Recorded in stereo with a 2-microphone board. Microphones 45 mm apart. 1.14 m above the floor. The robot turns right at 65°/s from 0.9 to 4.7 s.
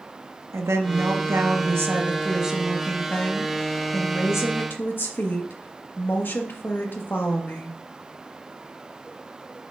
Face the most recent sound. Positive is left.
turn(degrees=135)